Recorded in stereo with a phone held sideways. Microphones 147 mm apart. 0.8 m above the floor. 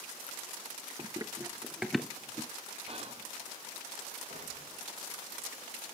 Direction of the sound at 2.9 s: 40° right (ahead or behind).